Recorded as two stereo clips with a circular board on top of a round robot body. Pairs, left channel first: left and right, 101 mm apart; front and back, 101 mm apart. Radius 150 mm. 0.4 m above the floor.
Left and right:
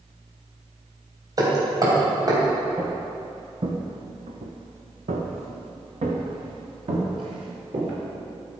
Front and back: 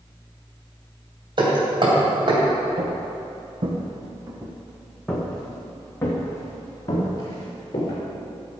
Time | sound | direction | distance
1.4 | hammering | 140° right | 3 m
2.8 | footsteps | 160° right | 1.8 m